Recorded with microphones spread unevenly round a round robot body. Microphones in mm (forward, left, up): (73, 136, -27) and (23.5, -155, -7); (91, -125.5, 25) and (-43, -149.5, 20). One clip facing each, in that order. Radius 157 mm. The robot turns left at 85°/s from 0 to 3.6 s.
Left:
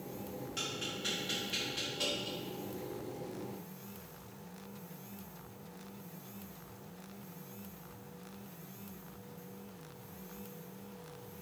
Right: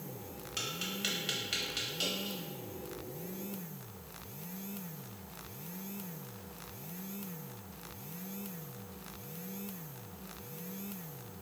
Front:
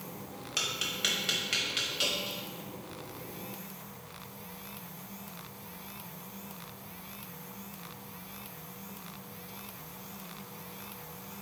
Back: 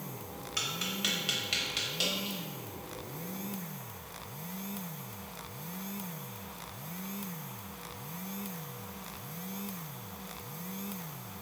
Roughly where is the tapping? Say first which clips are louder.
Even, back 1 dB; ahead right.